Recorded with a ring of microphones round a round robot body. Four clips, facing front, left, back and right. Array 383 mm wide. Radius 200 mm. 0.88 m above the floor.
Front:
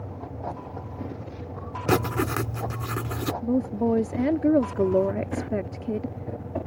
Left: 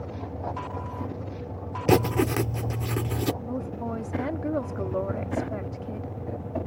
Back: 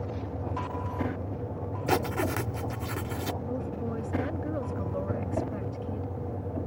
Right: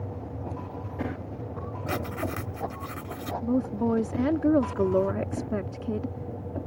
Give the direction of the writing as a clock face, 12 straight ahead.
10 o'clock.